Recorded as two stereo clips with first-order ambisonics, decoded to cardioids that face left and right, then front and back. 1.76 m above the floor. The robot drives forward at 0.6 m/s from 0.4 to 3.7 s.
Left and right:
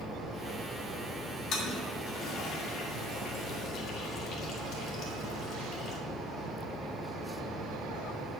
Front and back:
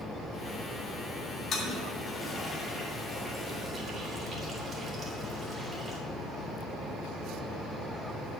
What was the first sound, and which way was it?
A toilet flushing, 50° left.